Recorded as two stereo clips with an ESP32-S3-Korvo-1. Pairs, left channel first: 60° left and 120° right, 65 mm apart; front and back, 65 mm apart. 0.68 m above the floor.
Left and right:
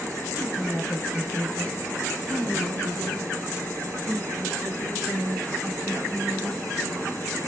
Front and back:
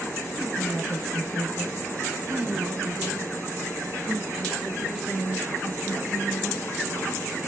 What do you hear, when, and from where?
0.4 s a woman speaking: 130° left, 1.9 m; by 7.1 s 115° right, 3.5 m